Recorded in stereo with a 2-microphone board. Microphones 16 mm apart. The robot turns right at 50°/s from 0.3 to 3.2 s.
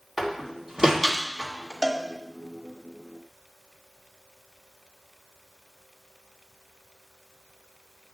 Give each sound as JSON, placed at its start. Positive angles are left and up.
{"t": 0.2, "sound": "a door slam", "side_deg": -15, "distance_m": 2.0}
{"t": 1.8, "sound": "a cowbell", "side_deg": -50, "distance_m": 1.8}